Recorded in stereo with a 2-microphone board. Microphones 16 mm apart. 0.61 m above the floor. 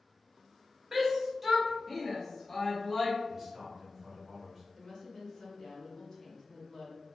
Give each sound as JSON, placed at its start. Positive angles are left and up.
{"t": 0.9, "sound": "a shout", "side_deg": -25, "distance_m": 1.1}
{"t": 3.3, "sound": "a man speaking", "side_deg": -15, "distance_m": 1.8}
{"t": 4.7, "sound": "a woman speaking", "side_deg": 35, "distance_m": 1.3}